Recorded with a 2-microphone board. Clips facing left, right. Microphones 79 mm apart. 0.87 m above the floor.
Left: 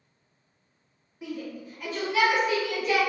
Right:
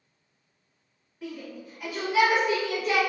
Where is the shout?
10° left (ahead or behind), 1.1 m; by 3.0 s 40° right (ahead or behind), 1.2 m.